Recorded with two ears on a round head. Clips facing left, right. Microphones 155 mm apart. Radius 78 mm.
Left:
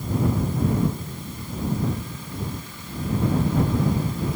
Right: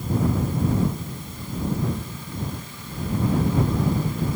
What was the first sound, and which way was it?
Only background noise.